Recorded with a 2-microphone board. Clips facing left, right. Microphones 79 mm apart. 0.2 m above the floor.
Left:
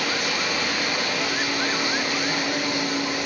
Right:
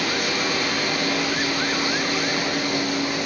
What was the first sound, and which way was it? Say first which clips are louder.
Running water: right 2 dB; 55° right (ahead or behind).